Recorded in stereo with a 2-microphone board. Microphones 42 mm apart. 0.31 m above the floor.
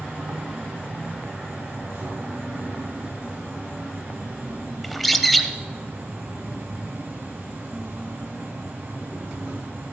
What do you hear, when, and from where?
0.0 s an insect: 65° right (ahead or behind), 3.5 m
4.8 s a bird: centre (ahead or behind), 0.7 m